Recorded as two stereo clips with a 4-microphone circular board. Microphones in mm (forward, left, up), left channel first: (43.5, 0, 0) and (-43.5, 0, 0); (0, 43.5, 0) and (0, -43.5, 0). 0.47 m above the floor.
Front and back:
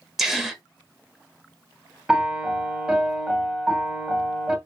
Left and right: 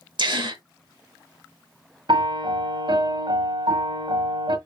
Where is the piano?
100° right, 1.2 m.